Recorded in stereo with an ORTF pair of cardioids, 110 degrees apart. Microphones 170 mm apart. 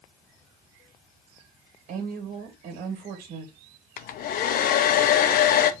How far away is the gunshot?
No gunshot in this recording.